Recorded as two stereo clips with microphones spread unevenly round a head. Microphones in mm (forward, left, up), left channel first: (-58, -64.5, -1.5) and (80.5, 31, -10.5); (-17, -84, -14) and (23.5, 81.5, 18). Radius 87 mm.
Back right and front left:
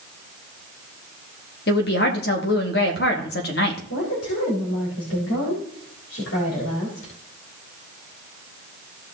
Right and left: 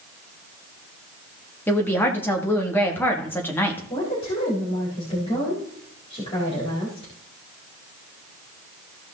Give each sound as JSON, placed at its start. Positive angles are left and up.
{"t": 1.7, "sound": "a woman speaking", "azimuth_deg": 180, "distance_m": 2.0}
{"t": 3.9, "sound": "a woman speaking", "azimuth_deg": -165, "distance_m": 4.0}